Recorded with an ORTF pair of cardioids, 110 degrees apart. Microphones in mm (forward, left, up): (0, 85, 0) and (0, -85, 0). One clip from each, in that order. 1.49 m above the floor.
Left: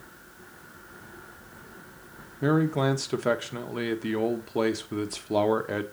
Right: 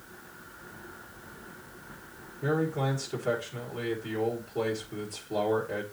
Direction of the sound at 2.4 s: 60° left.